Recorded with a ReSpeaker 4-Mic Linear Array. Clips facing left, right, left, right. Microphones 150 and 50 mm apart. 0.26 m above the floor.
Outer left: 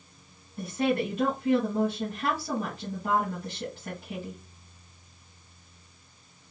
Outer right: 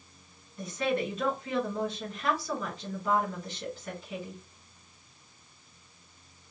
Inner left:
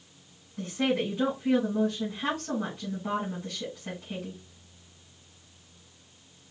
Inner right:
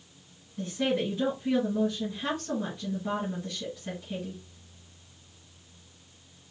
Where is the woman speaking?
60° left (ahead or behind), 2.5 m.